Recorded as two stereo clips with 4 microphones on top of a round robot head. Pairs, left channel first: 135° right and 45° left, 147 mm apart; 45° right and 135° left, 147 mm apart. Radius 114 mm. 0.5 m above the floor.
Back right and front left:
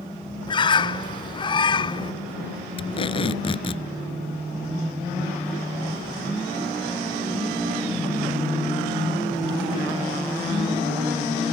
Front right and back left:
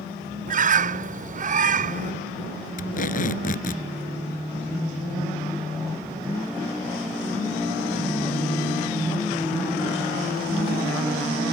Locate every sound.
0.5 s a bird: 165° left
2.8 s tape being pulled: 80° right